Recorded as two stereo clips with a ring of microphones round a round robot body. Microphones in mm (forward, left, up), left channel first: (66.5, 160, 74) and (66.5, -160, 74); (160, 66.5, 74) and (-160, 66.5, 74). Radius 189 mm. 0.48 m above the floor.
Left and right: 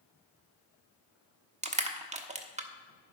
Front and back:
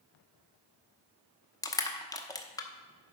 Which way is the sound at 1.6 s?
60° right.